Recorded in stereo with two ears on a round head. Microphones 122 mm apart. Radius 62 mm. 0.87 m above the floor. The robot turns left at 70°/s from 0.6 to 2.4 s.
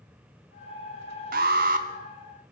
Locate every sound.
1.3 s an alarm: 75° right, 2 m; by 1.9 s 110° right, 2 m